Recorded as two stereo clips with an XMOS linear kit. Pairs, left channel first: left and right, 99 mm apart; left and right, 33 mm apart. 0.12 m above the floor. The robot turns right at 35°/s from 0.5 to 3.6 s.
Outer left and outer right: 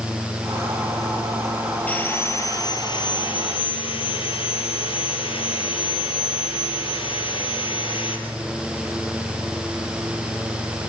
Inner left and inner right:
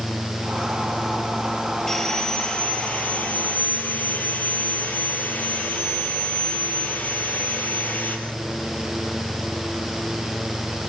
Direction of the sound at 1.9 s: 15° left.